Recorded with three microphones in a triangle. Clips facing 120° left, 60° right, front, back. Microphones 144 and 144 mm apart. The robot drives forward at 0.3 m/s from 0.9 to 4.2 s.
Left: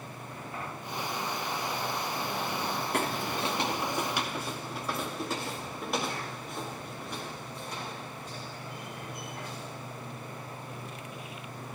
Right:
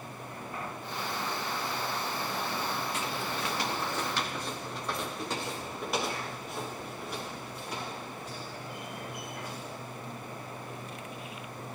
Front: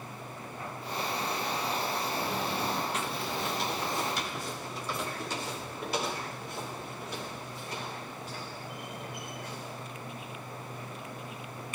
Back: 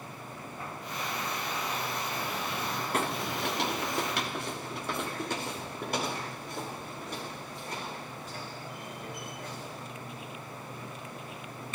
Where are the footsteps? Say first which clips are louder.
Left 3 dB, back 2 dB; 145° left, 0.8 m; by 9.9 s 145° right, 11 m.